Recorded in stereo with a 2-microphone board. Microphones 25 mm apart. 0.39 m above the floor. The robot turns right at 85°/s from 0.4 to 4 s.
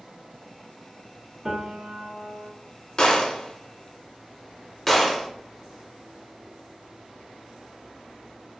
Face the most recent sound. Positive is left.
turn(degrees=5)  # may be behind; listen again after turning